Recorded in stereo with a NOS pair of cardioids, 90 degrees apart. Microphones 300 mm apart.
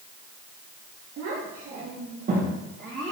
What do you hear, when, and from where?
1.2 s a child speaking: 55° right, 2 m; by 3.1 s 25° right, 3.5 m